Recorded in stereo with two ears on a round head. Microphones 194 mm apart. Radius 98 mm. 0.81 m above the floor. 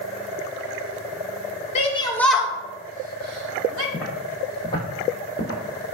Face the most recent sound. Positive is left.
turn(degrees=50)  # may be behind; listen again after turning